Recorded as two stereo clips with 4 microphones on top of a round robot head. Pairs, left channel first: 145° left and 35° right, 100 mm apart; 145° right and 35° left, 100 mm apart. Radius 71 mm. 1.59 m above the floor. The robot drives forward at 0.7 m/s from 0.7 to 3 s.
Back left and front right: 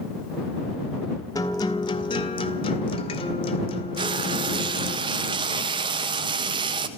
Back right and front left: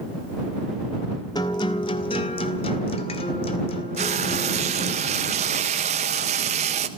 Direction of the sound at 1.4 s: 175° right.